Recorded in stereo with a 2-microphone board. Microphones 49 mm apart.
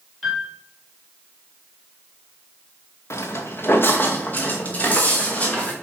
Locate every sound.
0.2 s a piano: 5° left (ahead or behind), 3 m
3.1 s footsteps: 65° left (ahead or behind), 1.1 m; by 5.7 s 25° left (ahead or behind), 3.5 m